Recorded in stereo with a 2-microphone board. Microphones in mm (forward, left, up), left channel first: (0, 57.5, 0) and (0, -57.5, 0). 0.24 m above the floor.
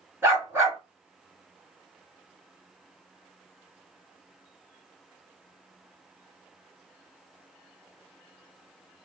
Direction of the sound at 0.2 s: 20° right (ahead or behind).